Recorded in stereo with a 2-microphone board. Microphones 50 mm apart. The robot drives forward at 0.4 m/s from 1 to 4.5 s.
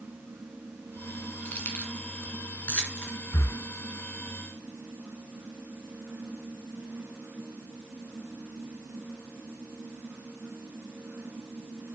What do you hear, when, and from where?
1.4 s keys jangling: 40° left (ahead or behind), 1.8 m; by 3.1 s 30° left (ahead or behind), 2.5 m
3.3 s breathing: 75° left (ahead or behind), 0.5 m; by 3.6 s 80° left, 0.5 m